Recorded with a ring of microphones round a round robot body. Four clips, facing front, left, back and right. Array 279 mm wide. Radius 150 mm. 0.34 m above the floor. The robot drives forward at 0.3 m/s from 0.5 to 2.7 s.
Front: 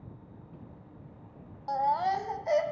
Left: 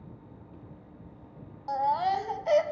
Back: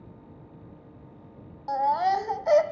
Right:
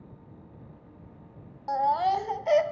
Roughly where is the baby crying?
Behind right.